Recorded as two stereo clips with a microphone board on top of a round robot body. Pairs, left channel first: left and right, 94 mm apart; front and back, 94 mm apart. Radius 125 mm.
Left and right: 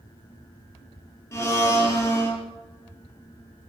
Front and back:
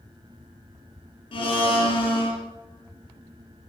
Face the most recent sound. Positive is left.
turn(degrees=25)